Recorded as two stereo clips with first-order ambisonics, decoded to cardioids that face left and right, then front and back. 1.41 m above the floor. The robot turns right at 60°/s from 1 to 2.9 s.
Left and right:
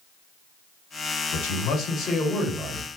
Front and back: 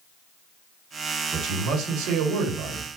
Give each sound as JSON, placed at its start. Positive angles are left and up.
{"t": 1.3, "sound": "a man speaking", "azimuth_deg": 110, "distance_m": 1.4}